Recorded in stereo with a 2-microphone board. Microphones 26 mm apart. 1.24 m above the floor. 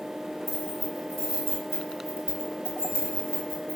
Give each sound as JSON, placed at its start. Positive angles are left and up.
{"t": 0.5, "sound": "keys jangling", "side_deg": 5, "distance_m": 4.0}